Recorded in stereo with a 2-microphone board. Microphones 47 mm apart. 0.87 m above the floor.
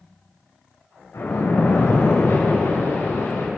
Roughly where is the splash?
Left.